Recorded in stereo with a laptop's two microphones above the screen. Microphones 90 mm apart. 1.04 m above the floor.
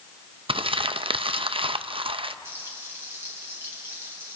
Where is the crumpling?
80° right, 0.6 m.